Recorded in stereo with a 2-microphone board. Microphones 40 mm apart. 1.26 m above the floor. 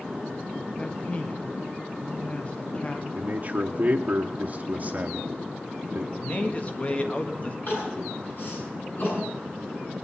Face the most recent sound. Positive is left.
turn(degrees=50)  # may be behind; listen again after turning